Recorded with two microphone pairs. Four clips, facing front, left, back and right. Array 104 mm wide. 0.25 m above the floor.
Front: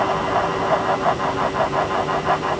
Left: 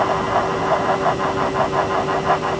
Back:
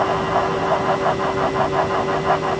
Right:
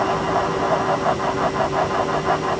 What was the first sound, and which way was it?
Only background noise.